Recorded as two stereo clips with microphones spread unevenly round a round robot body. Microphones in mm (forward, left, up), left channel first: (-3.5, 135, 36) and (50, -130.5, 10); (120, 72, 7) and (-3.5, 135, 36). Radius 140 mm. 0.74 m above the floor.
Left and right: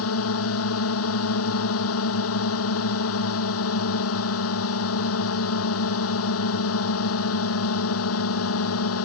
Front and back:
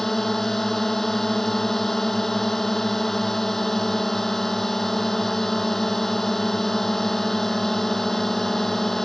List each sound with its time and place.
0.0 s a drone: 60° left